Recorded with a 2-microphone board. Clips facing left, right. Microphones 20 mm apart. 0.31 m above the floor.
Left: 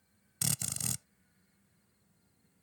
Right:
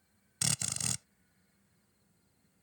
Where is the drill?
20° right (ahead or behind).